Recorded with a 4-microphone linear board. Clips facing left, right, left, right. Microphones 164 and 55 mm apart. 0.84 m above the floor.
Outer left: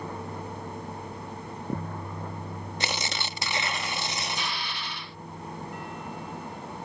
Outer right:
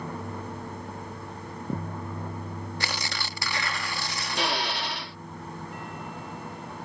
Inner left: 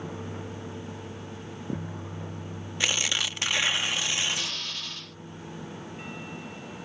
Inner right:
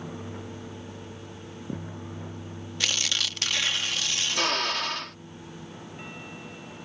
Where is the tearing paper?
20° left (ahead or behind).